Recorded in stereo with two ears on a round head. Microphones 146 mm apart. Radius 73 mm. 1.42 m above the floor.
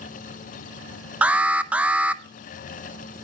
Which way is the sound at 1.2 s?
10° right (ahead or behind).